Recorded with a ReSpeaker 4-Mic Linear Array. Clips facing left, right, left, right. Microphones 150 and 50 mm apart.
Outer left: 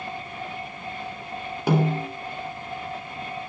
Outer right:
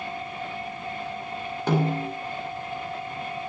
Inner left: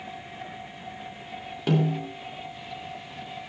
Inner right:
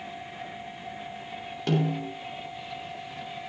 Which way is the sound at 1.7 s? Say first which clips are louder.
Outer left 2 dB, inner left 2 dB; 10° left (ahead or behind).